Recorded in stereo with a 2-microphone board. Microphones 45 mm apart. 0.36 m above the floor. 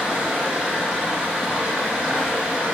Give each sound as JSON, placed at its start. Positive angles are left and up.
{"t": 0.0, "sound": "running water", "side_deg": -15, "distance_m": 0.7}